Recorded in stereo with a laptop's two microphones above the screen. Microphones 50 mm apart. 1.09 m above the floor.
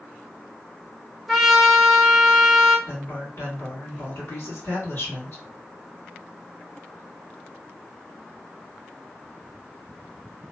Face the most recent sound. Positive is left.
turn(degrees=60)  # may be behind; listen again after turning